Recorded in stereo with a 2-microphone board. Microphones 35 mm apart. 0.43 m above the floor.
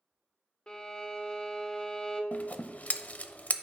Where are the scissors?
50° left (ahead or behind), 0.5 m.